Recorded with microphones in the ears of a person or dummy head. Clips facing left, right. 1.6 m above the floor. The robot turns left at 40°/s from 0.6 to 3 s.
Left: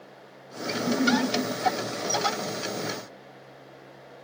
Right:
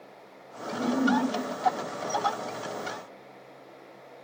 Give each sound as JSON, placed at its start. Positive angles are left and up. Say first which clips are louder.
{"t": 0.7, "sound": "a giggle", "louder": "left 1 dB", "side_deg": -65, "distance_m": 5.5}